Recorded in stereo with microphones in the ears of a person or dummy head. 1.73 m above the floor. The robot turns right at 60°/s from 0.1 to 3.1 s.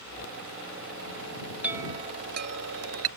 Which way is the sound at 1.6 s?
175° right.